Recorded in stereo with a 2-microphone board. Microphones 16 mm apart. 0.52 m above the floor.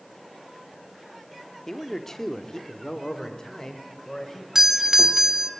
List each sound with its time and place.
1.7 s a man speaking: 25° left (ahead or behind), 1.0 m; by 4.5 s 35° left (ahead or behind), 2.5 m
4.5 s a doorbell: 35° right (ahead or behind), 1.4 m